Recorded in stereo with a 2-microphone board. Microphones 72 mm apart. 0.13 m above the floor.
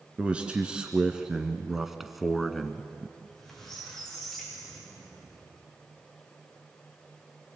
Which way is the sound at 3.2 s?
5° left (ahead or behind).